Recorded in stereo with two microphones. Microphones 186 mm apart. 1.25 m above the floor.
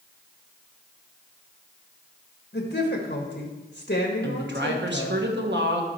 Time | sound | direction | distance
2.5 | a woman speaking | 60° left (ahead or behind) | 1.4 m
4.2 | a woman speaking | 75° right (ahead or behind) | 1.3 m